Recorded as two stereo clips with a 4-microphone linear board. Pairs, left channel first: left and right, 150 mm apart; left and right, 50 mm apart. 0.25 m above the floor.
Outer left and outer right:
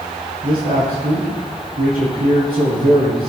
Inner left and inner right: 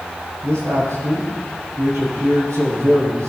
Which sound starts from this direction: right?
A man speaking, at 0.4 s.